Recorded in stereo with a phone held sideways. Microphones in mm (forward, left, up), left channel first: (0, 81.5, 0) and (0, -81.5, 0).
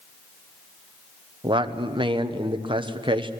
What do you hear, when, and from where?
1.4 s a man speaking: 30° right (ahead or behind), 1.0 m